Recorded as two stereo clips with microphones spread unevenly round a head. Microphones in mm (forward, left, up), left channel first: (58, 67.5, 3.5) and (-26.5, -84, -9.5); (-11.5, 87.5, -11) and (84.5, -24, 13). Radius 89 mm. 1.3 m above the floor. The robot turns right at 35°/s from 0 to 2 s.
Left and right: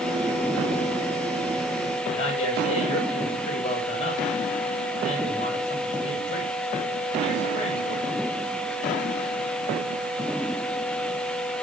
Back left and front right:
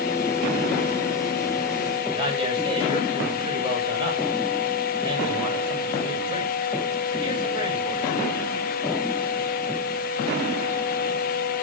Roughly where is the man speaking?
Ahead.